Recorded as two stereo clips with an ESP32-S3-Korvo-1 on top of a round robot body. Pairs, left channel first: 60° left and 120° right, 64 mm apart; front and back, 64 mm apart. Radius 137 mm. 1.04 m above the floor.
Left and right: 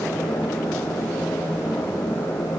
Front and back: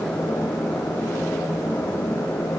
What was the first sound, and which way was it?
Only background noise.